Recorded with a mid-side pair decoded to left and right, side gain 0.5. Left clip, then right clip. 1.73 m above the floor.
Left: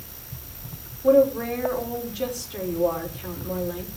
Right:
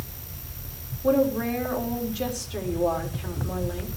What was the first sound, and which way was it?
A woman speaking, 5° right.